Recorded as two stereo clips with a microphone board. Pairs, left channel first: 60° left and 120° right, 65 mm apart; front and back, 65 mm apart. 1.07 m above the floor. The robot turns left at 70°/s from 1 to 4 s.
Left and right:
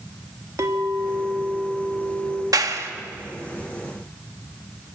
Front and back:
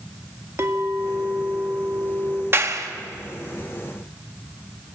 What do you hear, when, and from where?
0.6 s a clink: 140° right, 1.6 m; by 2.4 s 120° left, 1.6 m
2.5 s a clap: 130° right, 1.2 m; by 2.9 s 155° right, 1.2 m